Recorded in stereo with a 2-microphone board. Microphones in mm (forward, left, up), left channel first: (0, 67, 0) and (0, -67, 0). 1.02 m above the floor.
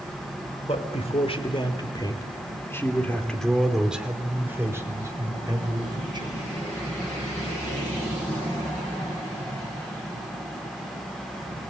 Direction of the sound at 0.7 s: 55° left (ahead or behind).